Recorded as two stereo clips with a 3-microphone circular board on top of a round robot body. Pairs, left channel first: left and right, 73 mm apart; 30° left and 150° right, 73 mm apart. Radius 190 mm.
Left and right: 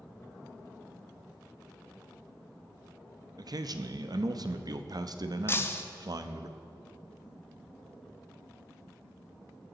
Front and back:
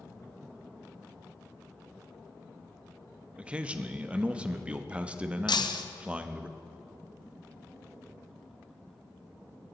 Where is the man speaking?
75° right, 1.1 m.